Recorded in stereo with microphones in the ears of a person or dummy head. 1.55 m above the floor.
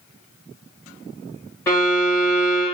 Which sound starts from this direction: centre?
A violin, at 1.7 s.